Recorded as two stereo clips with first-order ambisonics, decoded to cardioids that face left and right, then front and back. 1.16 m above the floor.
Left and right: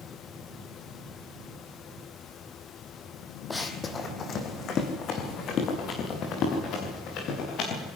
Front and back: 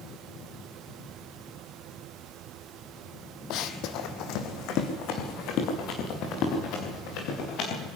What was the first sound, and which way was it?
Running footsteps, 10° left.